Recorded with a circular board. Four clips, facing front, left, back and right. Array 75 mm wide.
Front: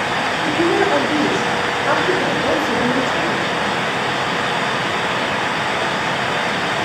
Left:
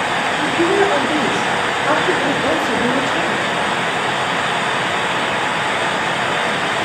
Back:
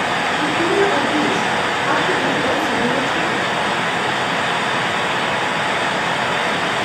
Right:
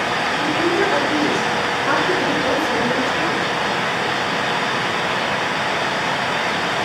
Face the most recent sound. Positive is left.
turn(degrees=80)